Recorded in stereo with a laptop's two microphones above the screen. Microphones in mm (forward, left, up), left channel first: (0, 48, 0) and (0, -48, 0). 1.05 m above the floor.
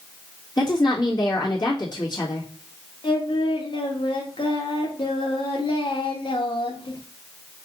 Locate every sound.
0.6 s a woman speaking: 45° left (ahead or behind), 1.4 m
3.0 s singing: 55° left (ahead or behind), 1.0 m